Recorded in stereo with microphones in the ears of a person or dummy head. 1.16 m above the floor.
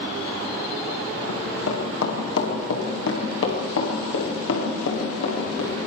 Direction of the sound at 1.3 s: 80° left.